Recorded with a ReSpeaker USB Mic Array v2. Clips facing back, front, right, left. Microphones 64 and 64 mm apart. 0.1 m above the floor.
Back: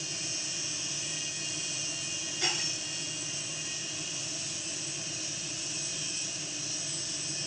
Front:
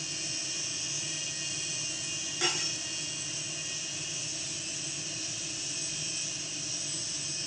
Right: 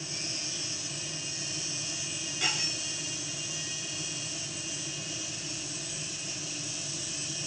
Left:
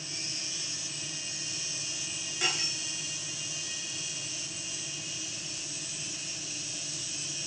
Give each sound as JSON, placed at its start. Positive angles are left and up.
{"t": 2.4, "sound": "cutlery clinking", "azimuth_deg": 15, "distance_m": 6.5}